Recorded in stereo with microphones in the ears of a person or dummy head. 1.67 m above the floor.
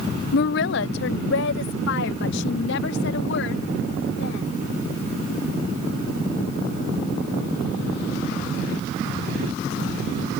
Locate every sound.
0.3 s a woman speaking: 55° left (ahead or behind); by 4.6 s 70° left (ahead or behind)